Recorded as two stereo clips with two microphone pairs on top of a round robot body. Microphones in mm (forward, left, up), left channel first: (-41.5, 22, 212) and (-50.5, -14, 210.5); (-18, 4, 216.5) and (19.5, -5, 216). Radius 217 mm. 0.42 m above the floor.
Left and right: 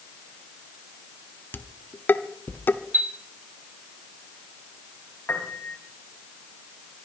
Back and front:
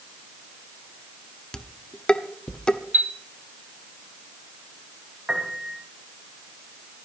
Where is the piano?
60° left, 3.5 m.